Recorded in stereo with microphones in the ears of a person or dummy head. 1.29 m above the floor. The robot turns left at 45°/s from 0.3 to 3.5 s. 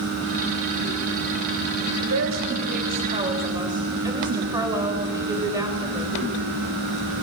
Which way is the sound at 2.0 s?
90° right.